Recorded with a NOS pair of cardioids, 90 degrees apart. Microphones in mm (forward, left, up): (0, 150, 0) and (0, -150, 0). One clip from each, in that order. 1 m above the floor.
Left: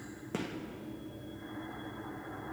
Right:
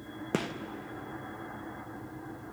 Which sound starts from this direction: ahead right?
A gunshot, at 0.3 s.